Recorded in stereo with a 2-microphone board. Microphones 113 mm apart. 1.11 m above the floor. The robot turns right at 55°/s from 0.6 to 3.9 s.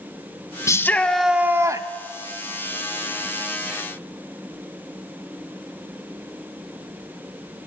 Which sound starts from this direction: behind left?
A shout, at 0.7 s.